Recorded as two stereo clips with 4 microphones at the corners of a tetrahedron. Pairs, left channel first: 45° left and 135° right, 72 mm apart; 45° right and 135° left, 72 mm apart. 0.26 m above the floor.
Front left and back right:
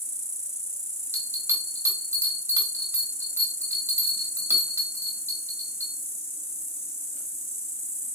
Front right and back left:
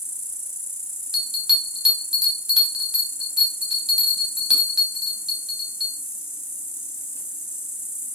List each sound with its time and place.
0.0 s an insect: straight ahead, 0.8 m
1.1 s a bell: 150° right, 1.6 m